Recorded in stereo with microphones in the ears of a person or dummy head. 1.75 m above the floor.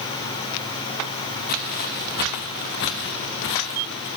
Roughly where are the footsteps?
Left.